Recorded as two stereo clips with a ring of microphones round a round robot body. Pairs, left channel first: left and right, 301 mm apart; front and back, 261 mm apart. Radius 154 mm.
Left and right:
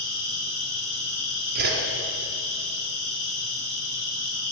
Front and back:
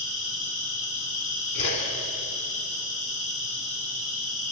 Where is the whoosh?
30° right, 2 m.